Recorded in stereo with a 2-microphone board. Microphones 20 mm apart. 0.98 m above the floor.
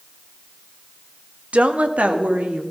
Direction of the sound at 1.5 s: 70° right (ahead or behind).